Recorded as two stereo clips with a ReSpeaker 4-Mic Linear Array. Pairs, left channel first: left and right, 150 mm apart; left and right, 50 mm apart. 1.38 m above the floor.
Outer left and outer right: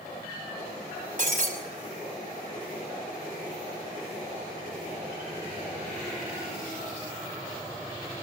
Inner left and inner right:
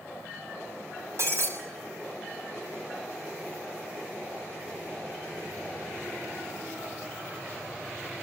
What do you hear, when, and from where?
1.2 s breaking glass: 55° right (ahead or behind), 6.5 m